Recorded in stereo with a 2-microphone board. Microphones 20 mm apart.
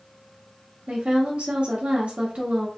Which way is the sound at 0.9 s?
65° right (ahead or behind).